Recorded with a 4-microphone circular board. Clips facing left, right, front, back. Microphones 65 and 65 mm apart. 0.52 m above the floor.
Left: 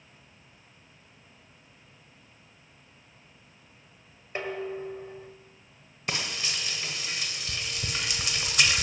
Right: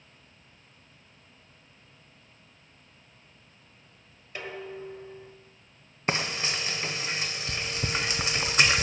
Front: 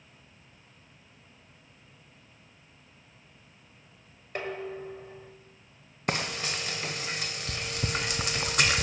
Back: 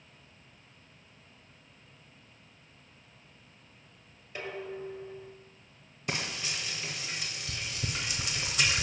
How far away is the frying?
About 0.7 m.